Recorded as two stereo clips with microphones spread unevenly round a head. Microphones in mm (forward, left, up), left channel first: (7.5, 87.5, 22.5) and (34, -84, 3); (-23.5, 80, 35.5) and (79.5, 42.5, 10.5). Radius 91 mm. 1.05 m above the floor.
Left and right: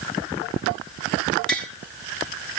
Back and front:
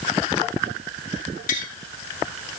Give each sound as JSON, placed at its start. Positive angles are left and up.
{"t": 1.5, "sound": "tapping", "azimuth_deg": -175, "distance_m": 1.7}